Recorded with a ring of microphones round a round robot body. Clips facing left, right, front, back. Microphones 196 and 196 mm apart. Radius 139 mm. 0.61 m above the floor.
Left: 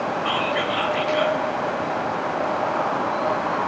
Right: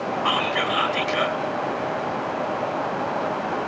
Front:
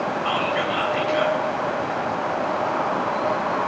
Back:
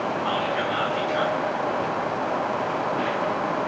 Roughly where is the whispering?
Right.